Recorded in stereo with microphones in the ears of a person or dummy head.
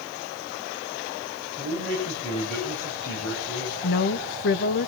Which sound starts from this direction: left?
A woman speaking, at 3.8 s.